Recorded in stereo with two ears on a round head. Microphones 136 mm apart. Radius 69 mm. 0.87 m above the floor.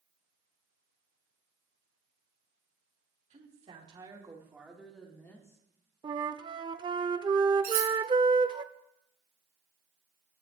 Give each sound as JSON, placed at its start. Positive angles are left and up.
{"t": 3.3, "sound": "a woman speaking", "side_deg": -45, "distance_m": 2.5}
{"t": 6.0, "sound": "a flute", "side_deg": -30, "distance_m": 0.5}
{"t": 7.6, "sound": "cutlery clinking", "side_deg": -60, "distance_m": 4.0}